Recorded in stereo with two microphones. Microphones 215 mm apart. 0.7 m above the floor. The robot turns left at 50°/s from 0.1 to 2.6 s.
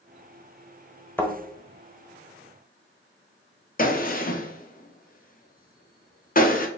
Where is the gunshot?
40° left (ahead or behind), 0.5 m.